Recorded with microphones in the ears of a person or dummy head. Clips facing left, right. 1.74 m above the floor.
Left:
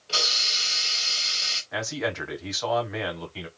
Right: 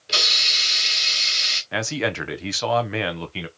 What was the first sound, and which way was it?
A hiss, 25° right (ahead or behind).